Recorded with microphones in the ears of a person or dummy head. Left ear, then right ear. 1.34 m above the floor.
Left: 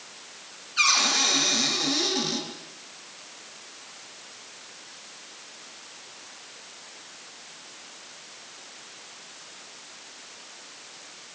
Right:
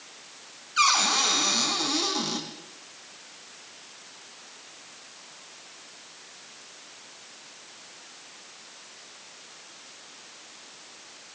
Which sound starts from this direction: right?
A cupboard door, at 0.8 s.